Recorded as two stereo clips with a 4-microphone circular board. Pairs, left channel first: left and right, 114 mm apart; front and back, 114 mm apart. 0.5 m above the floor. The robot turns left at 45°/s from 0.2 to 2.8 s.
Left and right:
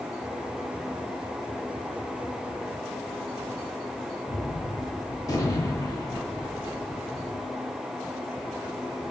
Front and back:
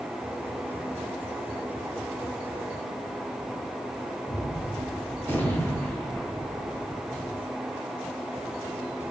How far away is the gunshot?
About 1.0 m.